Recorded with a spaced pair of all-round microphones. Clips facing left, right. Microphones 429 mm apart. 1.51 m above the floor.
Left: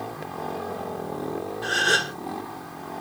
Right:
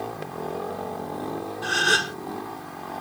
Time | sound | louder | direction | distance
1.6 | a gasp | even | 20° right (ahead or behind) | 0.7 m